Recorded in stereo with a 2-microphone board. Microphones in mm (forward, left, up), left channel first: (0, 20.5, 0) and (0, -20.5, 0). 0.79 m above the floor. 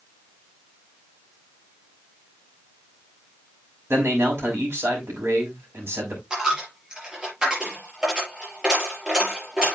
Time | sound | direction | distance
3.9 | a man speaking | 75° right (ahead or behind) | 5.5 m
6.3 | a dropped coin | 20° right (ahead or behind) | 5.5 m